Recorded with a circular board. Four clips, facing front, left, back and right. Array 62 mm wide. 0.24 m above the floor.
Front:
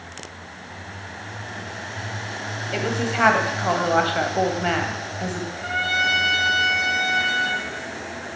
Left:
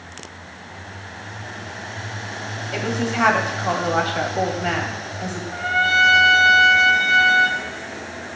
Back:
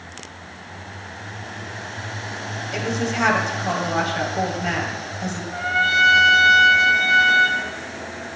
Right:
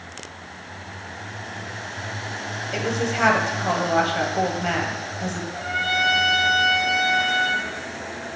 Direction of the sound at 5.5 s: 135° left.